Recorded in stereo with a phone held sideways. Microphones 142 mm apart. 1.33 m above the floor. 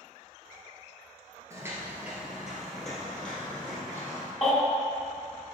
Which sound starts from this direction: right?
Footsteps, at 1.5 s.